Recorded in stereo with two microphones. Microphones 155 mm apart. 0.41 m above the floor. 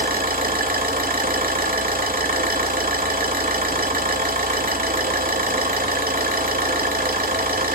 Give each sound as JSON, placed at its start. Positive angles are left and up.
{"t": 0.0, "sound": "an engine running", "side_deg": -70, "distance_m": 0.7}